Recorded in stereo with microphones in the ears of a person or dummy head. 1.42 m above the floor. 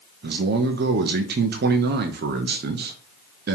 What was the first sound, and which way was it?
A man speaking, 50° right (ahead or behind).